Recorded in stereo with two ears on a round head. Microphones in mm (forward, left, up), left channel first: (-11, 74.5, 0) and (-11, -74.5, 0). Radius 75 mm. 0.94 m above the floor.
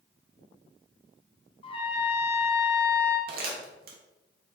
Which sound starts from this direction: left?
A trumpet, at 1.6 s.